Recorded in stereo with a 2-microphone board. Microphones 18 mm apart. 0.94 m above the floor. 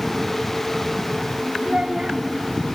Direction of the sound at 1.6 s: 50° right (ahead or behind).